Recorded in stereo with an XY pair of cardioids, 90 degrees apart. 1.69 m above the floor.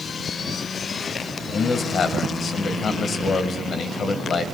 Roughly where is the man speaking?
Ahead left.